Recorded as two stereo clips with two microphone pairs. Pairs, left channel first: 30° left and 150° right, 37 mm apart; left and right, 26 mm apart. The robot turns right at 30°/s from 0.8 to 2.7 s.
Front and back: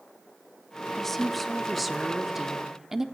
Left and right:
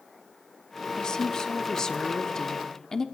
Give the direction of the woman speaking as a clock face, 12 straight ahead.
9 o'clock.